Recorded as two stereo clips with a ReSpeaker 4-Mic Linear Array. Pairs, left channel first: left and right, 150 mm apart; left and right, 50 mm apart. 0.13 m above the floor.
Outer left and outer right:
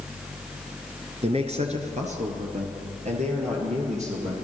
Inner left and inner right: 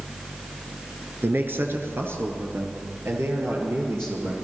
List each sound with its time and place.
1.2 s a man speaking: 45° right (ahead or behind), 1.4 m; by 4.3 s 50° right (ahead or behind), 2.5 m